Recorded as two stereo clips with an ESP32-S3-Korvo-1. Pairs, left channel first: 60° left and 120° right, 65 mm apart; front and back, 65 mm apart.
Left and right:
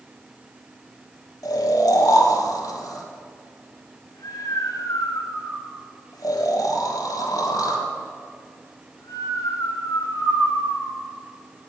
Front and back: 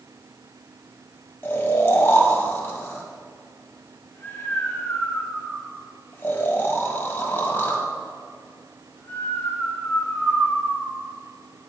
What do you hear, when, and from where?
1.4 s snoring: 55° left, 1.5 m